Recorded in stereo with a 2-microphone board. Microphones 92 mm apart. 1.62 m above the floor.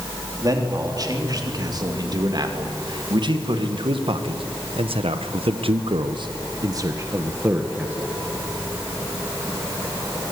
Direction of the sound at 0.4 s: 40° right (ahead or behind).